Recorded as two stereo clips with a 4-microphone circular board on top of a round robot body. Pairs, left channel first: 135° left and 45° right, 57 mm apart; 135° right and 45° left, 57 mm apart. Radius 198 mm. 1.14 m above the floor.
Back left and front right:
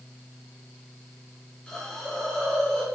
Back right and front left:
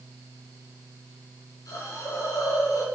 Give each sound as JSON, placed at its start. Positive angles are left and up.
{"t": 1.7, "sound": "a hiss", "azimuth_deg": -150, "distance_m": 5.0}